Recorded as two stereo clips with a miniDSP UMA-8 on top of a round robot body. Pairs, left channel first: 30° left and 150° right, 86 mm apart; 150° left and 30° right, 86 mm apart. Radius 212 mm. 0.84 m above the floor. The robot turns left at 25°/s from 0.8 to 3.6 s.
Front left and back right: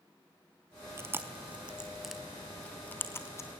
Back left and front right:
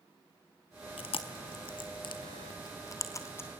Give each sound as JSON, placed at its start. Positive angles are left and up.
{"t": 1.0, "sound": "chewing", "azimuth_deg": 150, "distance_m": 0.6}